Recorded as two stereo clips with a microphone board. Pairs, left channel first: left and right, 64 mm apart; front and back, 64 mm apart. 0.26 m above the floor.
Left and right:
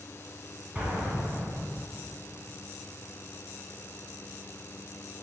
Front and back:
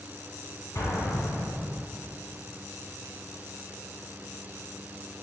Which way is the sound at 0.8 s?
20° right.